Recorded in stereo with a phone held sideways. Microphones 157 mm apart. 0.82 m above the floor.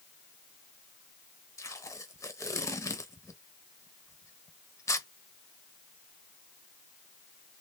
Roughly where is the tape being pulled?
Left.